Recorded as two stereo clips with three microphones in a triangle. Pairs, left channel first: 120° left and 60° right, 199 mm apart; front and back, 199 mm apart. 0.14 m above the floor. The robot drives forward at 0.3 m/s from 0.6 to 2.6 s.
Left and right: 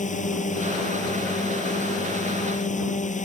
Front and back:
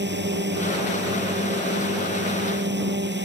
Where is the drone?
165° left.